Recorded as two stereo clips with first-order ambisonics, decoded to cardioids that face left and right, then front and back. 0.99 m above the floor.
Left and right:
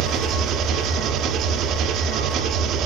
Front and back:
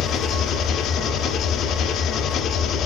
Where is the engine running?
50° right, 0.9 m.